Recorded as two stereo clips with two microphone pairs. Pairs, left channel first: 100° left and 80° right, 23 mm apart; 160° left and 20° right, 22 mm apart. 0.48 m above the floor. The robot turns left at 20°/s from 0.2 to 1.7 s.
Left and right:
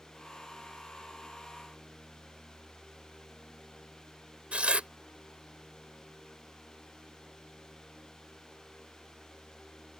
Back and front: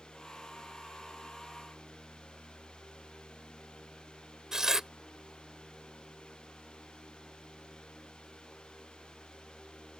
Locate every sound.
4.5 s tearing paper: 75° right